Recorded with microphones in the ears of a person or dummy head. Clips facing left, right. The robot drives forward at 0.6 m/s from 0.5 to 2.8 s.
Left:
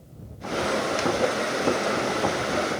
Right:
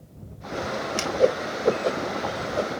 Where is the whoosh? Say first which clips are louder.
Right 7 dB; 45° right (ahead or behind); by 2.7 s 40° right (ahead or behind).